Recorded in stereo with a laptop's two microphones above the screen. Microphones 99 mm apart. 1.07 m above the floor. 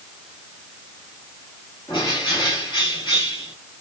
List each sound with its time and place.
1.9 s a bird: 45° left (ahead or behind), 2 m